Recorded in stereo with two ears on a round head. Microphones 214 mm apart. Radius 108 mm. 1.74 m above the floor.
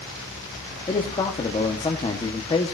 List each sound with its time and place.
0.9 s a man speaking: 20° left (ahead or behind), 1.7 m